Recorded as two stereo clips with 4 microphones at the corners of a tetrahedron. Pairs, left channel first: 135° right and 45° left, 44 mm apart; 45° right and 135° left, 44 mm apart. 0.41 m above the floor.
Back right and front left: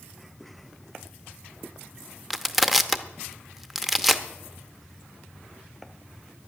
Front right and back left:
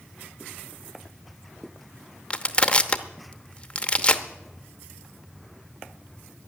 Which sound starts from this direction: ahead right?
Crushing, at 2.3 s.